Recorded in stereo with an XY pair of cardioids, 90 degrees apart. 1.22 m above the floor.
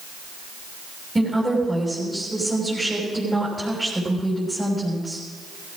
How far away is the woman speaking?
About 6.5 m.